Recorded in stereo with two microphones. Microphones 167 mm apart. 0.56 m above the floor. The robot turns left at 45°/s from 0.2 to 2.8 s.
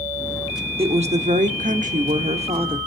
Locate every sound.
0.8 s a woman speaking: 50° right, 1.1 m; by 2.8 s 140° right, 1.1 m